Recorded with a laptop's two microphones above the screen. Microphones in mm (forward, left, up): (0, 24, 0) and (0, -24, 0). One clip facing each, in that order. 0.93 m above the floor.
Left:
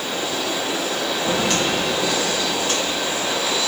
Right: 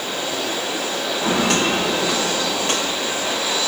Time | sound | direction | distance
1.2 | footsteps | 70° right (ahead or behind) | 5 m